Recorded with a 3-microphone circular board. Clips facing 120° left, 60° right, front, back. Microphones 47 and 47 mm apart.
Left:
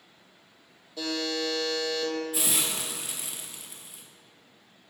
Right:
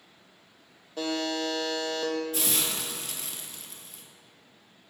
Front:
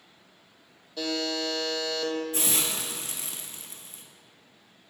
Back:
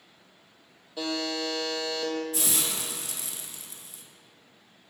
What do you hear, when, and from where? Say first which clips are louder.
1.0 s a buzzer: right 1 dB, front 1 dB; 105° right, 0.9 m
2.3 s a hiss: even, front 1 dB; 40° left, 0.7 m